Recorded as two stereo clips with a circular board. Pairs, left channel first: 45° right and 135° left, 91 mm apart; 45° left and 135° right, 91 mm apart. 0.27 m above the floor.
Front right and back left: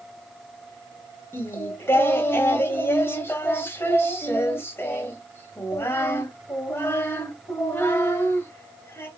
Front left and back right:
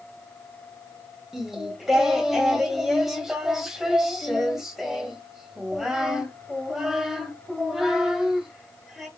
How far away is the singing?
About 1.0 m.